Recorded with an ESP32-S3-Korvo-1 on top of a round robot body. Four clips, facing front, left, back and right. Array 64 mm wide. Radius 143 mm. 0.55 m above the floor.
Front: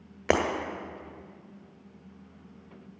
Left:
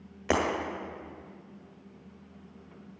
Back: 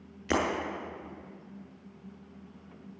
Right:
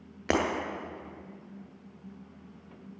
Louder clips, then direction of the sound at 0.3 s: Even, front 4 dB; 15° right.